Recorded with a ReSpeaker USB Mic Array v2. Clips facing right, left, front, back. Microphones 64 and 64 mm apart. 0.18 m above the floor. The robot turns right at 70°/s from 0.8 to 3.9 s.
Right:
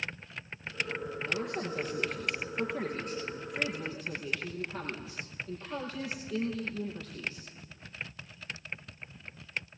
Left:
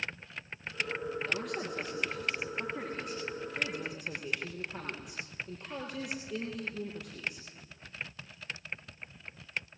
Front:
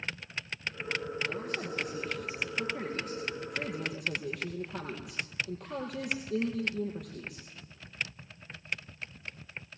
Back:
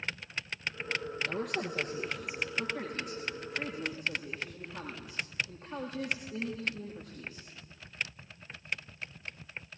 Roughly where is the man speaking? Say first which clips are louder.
Right 1 dB, back 1 dB; behind.